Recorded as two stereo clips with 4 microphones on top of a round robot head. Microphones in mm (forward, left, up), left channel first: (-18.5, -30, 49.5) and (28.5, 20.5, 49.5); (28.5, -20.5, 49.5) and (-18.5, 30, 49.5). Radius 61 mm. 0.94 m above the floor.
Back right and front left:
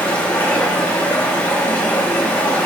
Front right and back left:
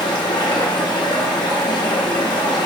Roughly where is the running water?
Ahead right.